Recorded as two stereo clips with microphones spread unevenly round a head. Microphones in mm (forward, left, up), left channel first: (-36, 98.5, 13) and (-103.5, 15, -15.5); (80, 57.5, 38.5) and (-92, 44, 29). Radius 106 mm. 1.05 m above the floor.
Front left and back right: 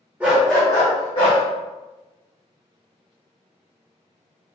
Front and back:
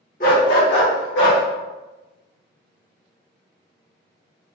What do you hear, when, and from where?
0.2 s a dog barking: 35° right, 0.9 m; by 1.4 s 10° left, 1.6 m